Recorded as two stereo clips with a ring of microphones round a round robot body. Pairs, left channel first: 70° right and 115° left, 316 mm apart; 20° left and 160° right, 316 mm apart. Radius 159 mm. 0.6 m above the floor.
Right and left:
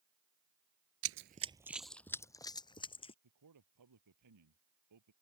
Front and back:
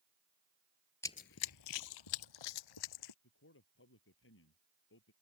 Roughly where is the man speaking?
Left.